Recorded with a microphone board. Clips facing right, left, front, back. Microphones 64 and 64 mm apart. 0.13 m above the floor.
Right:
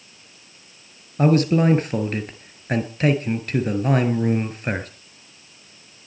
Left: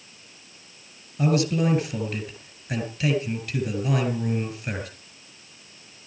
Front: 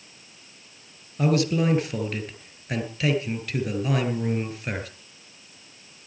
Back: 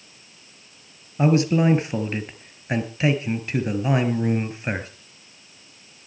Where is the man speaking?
120° right, 1.9 m.